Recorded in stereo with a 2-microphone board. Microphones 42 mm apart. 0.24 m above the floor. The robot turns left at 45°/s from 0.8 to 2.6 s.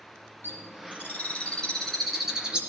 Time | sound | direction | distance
0.4 | a bird | 55° left (ahead or behind) | 3.5 m